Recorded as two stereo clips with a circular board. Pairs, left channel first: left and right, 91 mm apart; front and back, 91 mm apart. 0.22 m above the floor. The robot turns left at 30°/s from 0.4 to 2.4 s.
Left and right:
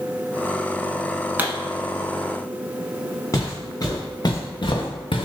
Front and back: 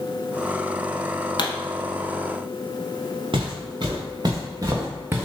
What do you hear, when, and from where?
1.4 s a pop: 20° right, 0.7 m; by 1.5 s 25° right, 0.7 m
3.3 s footsteps: 150° left, 1.8 m; by 5.2 s 110° left, 0.9 m